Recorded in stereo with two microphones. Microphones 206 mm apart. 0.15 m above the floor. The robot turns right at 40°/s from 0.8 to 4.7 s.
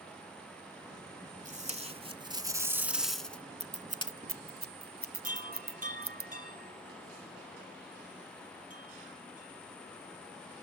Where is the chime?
40° right (ahead or behind), 4 m.